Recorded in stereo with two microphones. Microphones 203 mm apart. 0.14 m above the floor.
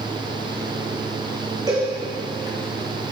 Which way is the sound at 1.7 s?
20° right (ahead or behind).